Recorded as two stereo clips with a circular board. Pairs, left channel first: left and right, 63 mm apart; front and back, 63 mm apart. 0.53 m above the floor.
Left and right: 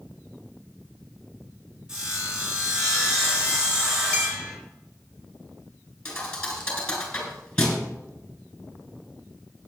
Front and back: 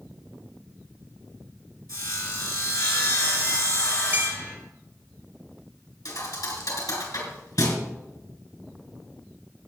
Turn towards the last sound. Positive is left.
turn(degrees=10)